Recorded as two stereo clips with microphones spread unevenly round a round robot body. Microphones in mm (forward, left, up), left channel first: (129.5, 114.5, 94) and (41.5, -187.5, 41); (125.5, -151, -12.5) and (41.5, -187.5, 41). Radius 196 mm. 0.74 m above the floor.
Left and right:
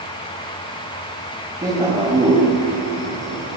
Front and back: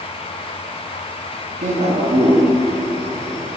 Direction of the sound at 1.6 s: 175° right.